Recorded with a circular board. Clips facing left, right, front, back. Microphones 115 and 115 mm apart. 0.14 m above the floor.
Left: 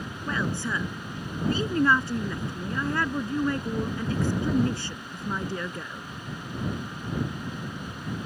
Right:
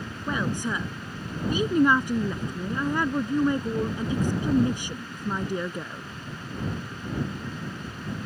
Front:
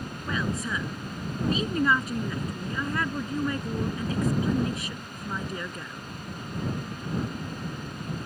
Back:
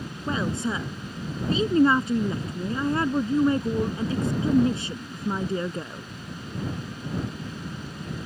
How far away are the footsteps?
No footsteps in this recording.